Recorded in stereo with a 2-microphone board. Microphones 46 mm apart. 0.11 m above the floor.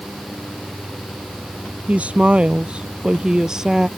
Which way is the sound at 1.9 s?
30° right (ahead or behind).